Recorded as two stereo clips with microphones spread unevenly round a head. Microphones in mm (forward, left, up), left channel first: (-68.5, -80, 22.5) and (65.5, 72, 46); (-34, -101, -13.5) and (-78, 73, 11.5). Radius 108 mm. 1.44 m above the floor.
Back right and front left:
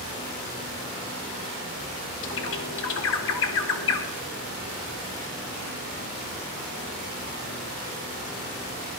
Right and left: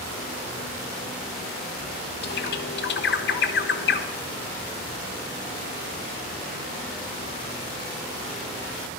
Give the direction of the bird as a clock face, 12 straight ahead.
3 o'clock.